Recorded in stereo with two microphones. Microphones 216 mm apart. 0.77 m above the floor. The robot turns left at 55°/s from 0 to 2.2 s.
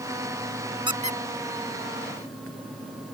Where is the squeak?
20° right (ahead or behind); by 2.5 s 85° right.